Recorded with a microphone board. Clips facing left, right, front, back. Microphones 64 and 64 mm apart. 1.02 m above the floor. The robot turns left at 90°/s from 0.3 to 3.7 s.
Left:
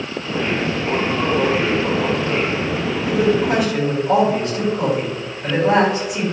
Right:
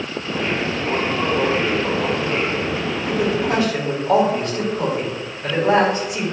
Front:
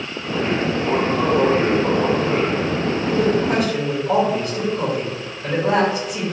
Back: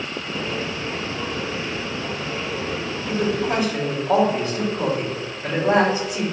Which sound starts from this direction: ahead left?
A woman speaking, at 3.0 s.